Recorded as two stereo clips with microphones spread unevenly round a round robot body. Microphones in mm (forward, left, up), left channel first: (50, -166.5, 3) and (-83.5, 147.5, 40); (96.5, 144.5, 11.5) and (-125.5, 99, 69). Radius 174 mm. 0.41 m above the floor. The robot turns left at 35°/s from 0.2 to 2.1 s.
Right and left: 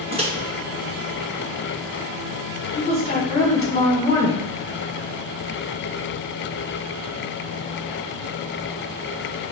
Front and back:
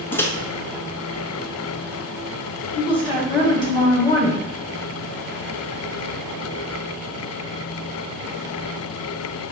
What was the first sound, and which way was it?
A microwave, 45° left.